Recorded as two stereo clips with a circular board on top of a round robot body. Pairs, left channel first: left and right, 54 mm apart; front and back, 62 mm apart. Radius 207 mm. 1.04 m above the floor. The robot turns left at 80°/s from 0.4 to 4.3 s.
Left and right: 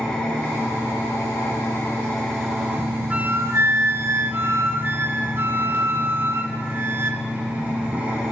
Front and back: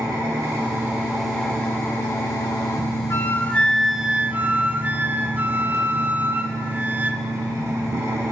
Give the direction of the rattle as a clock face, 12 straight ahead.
No rattle in this recording.